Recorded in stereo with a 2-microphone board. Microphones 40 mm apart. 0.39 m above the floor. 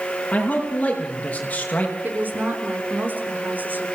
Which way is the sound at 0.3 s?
35° left (ahead or behind).